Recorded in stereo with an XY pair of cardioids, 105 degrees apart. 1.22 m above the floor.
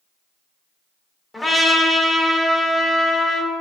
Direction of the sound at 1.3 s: 20° left.